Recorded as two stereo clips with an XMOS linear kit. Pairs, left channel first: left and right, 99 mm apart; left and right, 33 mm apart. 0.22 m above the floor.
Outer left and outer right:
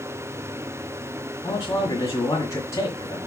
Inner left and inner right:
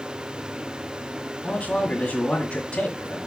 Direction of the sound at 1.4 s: 30° left (ahead or behind).